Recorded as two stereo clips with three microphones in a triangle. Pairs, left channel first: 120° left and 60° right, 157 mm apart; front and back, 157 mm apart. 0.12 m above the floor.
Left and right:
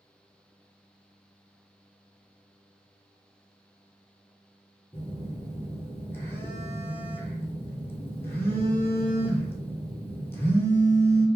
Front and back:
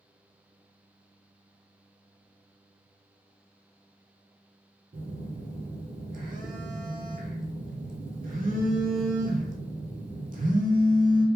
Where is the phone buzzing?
165° right, 0.6 m.